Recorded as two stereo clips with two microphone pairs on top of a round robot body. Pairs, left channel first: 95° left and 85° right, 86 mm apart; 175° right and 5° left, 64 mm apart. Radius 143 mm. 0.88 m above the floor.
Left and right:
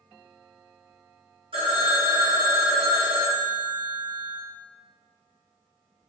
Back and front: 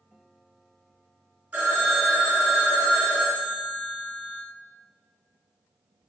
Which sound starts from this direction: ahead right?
A phone ringing, at 1.5 s.